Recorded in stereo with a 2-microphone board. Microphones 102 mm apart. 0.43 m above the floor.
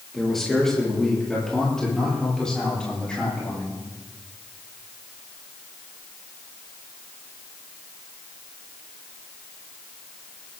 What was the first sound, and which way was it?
A man speaking, 5° left (ahead or behind).